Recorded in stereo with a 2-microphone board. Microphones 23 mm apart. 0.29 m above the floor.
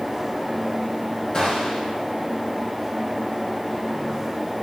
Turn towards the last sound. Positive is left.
turn(degrees=30)  # may be behind; listen again after turning